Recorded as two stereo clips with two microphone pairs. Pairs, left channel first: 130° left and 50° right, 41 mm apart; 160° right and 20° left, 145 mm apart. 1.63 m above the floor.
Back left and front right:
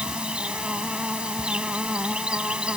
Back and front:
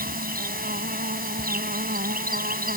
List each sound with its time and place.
0.0 s an insect: 20° left